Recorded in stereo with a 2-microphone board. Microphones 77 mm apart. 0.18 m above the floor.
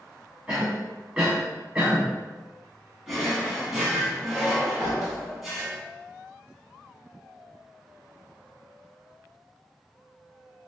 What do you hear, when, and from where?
0.5 s a cough: 10° right (ahead or behind), 1.4 m
3.1 s a drawer: 5° right (ahead or behind), 0.8 m